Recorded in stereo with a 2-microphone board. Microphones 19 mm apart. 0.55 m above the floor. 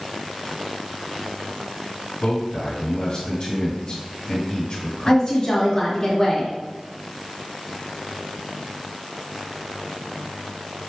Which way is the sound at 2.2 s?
50° left (ahead or behind).